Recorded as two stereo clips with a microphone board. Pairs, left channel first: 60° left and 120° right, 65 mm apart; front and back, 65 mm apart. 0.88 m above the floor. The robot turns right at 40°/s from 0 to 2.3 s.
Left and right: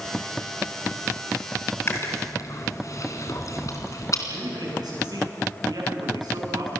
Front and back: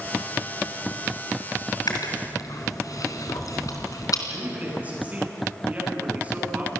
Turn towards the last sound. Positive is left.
turn(degrees=-115)